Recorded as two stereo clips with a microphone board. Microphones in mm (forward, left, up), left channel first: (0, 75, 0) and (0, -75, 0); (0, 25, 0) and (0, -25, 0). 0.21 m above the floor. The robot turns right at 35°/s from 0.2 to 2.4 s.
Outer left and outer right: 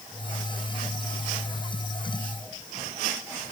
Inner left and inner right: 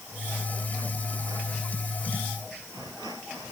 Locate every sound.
Only background noise.